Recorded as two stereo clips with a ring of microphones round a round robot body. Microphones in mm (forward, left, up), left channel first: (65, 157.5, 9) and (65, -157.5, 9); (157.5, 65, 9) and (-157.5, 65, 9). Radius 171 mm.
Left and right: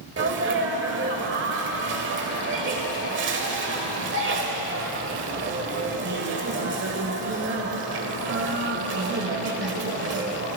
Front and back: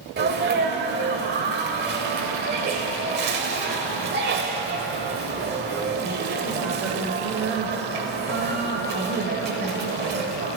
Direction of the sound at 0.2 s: 130° right.